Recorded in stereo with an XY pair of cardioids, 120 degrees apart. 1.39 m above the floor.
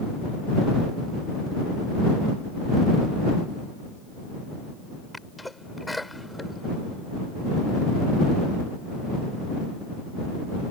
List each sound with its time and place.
5.1 s a sneeze: 5° left